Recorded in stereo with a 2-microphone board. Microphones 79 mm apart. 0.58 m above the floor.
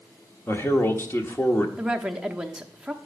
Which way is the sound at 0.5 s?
30° left (ahead or behind).